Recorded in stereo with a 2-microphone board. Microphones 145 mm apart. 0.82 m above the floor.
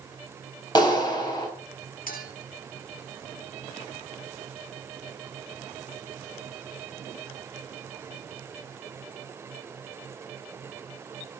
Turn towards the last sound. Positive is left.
turn(degrees=80)